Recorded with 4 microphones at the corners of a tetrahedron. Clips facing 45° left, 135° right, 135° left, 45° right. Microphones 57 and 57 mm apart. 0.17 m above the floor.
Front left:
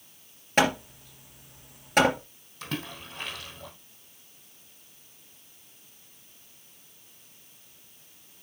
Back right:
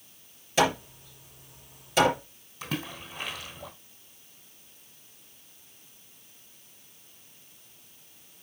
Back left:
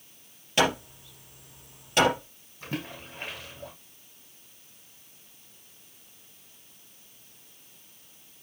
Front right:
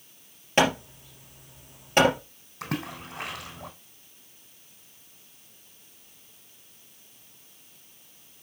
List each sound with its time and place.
0.6 s hammering: 10° left, 3 m
2.6 s a splash: 50° right, 3 m